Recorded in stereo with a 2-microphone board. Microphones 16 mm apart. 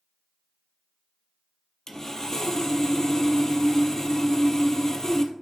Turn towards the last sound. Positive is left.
turn(degrees=25)  # may be behind; listen again after turning